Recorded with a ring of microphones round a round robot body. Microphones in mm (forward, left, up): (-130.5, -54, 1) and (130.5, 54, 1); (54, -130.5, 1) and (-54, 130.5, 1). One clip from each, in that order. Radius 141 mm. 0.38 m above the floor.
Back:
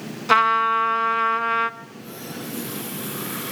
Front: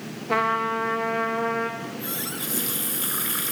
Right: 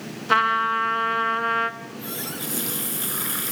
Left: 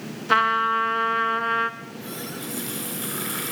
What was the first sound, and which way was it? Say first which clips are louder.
A trumpet: back 6 dB, even; 155° right.